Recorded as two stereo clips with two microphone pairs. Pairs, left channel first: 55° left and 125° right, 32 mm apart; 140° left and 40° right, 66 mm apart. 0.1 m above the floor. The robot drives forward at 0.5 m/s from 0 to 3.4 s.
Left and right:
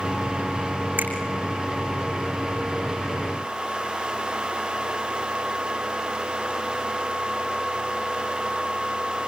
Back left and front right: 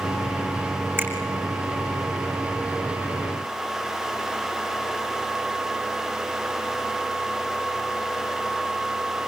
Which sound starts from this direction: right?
A finger snap, at 1.0 s.